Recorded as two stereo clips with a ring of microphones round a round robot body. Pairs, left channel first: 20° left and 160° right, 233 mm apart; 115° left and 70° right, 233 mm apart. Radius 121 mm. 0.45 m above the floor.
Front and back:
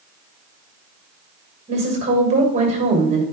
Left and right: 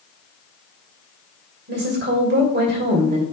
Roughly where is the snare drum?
No snare drum in this recording.